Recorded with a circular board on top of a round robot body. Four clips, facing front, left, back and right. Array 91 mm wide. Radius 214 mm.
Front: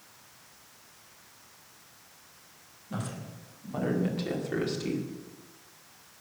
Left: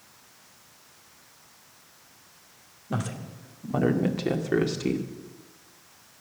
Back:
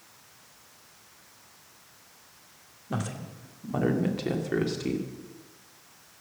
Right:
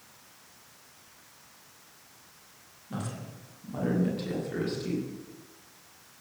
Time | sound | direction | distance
2.9 | a woman speaking | 130° left | 2.5 m